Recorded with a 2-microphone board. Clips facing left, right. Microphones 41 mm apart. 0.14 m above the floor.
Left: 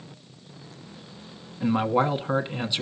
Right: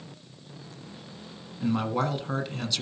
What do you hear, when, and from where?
1.6 s a man speaking: 25° left (ahead or behind), 1.1 m